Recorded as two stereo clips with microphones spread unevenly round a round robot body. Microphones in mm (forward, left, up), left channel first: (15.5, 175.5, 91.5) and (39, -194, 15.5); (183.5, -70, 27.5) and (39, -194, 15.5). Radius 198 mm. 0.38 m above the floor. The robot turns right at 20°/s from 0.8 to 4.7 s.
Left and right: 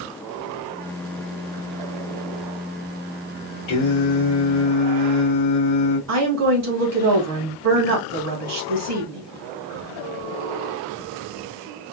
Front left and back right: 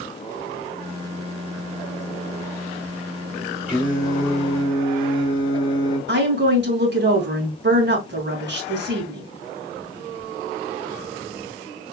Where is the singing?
135° left, 2.5 m; by 6.0 s 155° left, 2.5 m.